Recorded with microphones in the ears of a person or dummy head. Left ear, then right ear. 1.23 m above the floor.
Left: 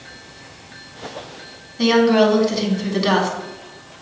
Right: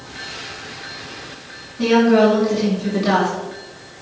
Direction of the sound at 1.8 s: 40° left (ahead or behind).